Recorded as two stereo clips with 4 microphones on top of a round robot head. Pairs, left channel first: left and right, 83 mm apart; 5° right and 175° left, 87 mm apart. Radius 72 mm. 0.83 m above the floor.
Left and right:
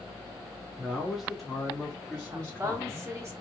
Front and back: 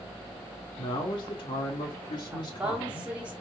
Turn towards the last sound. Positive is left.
turn(degrees=-120)